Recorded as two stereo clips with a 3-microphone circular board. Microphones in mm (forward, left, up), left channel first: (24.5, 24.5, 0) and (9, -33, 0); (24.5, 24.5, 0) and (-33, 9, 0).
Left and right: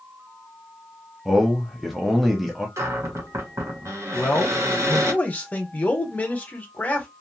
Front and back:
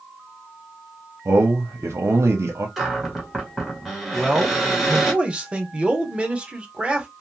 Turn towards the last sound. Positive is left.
turn(degrees=130)